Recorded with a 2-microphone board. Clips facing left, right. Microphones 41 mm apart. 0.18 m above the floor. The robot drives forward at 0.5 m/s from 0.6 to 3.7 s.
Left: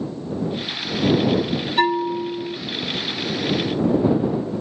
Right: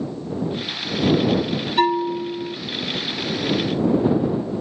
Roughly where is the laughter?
I don't hear laughter.